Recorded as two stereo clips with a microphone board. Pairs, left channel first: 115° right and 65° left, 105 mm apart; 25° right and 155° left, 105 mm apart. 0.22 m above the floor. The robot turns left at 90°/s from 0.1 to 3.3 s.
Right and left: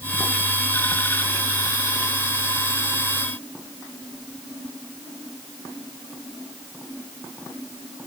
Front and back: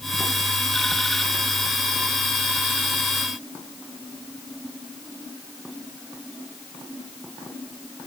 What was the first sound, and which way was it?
Only background noise.